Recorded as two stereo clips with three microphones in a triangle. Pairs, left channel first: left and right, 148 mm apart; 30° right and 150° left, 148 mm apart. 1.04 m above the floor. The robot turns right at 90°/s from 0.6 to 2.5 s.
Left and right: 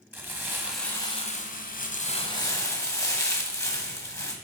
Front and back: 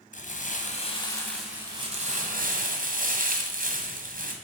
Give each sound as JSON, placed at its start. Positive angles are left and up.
{"t": 0.1, "sound": "crumpling", "azimuth_deg": -15, "distance_m": 0.9}